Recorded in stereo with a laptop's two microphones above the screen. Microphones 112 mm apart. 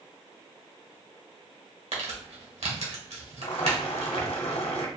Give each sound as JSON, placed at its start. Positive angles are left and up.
{"t": 1.9, "sound": "crumpling", "side_deg": -85, "distance_m": 1.9}
{"t": 3.4, "sound": "boiling", "side_deg": 70, "distance_m": 1.4}